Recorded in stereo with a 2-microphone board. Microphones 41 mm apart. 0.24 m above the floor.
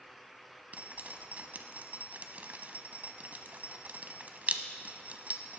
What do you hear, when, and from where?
0.7 s dripping: 40° right (ahead or behind), 0.6 m